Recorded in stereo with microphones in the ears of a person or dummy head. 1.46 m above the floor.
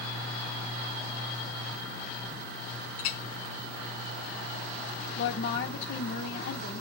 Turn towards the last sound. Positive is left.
turn(degrees=60)  # may be behind; listen again after turning